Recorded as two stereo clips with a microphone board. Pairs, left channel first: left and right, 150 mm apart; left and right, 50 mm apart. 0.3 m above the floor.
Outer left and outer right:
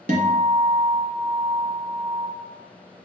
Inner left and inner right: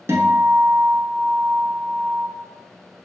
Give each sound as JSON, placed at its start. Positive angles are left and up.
{"t": 0.1, "sound": "a guitar", "side_deg": -65, "distance_m": 0.6}